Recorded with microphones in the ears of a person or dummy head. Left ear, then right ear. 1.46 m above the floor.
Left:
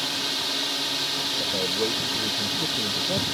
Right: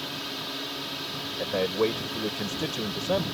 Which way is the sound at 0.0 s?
20° left (ahead or behind).